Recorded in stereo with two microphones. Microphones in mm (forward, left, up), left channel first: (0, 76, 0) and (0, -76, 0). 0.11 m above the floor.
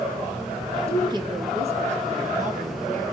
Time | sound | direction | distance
0.9 | a woman speaking | 20° right (ahead or behind) | 1.1 m